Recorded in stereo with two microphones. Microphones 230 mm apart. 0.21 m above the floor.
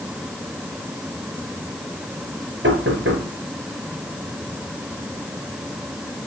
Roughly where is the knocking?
Right.